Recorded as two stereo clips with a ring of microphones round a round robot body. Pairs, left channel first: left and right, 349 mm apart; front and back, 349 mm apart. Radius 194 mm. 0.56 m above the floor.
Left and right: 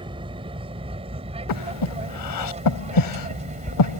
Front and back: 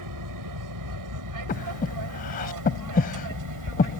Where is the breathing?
70° left.